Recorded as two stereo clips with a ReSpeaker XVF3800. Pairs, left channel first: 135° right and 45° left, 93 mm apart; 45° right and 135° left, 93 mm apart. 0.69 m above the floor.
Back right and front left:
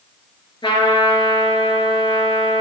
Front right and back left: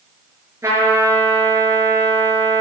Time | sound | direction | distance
0.6 | a trumpet | 170° right | 5.5 m